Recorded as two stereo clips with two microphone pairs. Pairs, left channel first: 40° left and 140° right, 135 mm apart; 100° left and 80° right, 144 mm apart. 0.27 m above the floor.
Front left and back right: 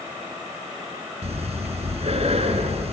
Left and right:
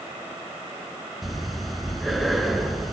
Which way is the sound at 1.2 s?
170° right.